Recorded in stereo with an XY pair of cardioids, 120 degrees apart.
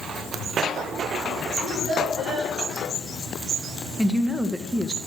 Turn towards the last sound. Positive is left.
turn(degrees=-10)